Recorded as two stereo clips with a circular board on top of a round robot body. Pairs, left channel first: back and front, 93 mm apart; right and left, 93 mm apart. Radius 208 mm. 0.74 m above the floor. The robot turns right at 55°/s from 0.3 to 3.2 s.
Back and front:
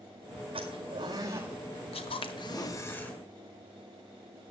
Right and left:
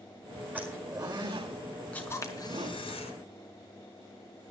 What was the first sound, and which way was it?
A zipper, 15° left.